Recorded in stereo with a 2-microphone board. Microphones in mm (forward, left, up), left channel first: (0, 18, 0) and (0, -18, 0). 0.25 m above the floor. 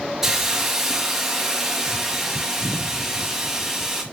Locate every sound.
0.2 s a hiss: 15° right (ahead or behind), 4 m